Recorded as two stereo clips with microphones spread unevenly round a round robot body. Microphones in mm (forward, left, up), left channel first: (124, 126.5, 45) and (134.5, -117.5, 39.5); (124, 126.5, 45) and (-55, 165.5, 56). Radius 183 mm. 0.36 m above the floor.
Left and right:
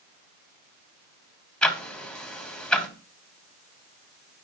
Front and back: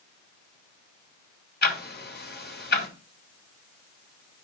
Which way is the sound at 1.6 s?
5° left.